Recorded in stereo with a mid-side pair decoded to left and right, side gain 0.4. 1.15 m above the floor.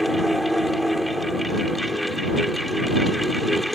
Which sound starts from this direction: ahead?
A fan, at 0.0 s.